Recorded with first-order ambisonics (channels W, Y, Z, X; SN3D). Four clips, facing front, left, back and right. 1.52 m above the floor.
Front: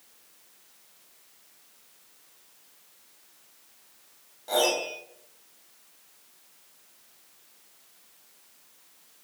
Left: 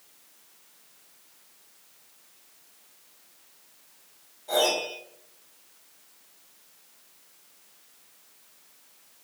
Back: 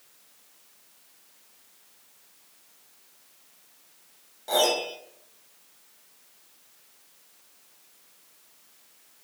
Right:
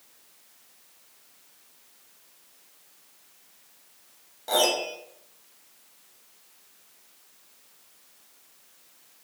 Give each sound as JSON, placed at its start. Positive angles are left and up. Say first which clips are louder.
{"t": 4.5, "sound": "a piano", "louder": "right 1 dB, back 1 dB", "azimuth_deg": -105, "distance_m": 0.6}